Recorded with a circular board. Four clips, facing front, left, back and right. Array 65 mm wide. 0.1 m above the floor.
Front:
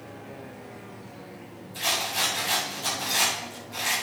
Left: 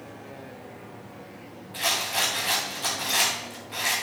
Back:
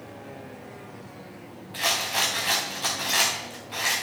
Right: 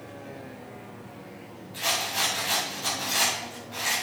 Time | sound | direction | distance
1.7 | a rattle | 160° left | 4.5 m